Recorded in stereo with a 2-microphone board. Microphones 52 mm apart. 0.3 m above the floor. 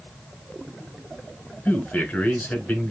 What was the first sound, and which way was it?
A man speaking, 30° left (ahead or behind).